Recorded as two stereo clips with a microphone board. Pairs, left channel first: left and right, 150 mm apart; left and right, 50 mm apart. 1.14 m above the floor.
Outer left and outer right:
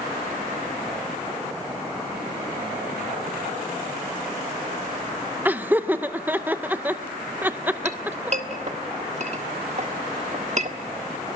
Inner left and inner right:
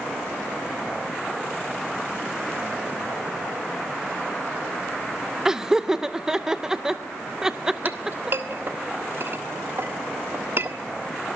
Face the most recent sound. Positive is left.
turn(degrees=-45)  # may be behind; listen again after turning